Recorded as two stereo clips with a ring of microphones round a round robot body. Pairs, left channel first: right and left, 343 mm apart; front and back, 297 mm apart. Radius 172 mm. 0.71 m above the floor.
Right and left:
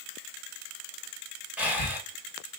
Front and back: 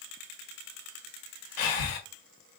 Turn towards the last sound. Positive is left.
turn(degrees=5)